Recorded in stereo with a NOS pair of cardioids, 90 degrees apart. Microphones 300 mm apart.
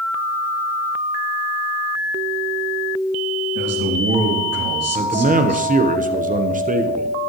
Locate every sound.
3.5 s a man speaking: 55° right, 3.5 m
5.0 s a man speaking: 25° right, 1.2 m